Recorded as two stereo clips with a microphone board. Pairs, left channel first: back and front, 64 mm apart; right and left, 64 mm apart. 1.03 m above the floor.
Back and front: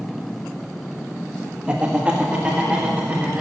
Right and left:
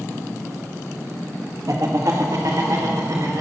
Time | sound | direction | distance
1.7 | laughter | 75° left | 1.6 m